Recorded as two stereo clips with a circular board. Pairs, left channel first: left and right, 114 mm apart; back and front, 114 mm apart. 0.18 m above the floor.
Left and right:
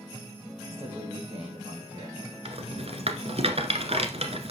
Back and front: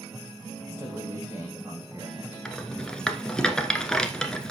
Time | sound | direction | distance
0.7 | a man speaking | 65° right | 6.5 m
2.5 | a rattle | 95° right | 1.3 m